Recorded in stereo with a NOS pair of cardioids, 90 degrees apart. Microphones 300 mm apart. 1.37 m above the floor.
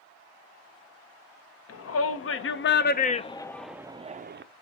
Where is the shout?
55° left, 1.2 m; by 4.4 s 35° right, 0.7 m.